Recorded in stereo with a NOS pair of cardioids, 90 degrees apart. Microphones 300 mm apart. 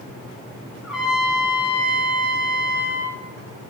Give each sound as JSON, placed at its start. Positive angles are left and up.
{"t": 0.8, "sound": "a trumpet", "azimuth_deg": 0, "distance_m": 0.8}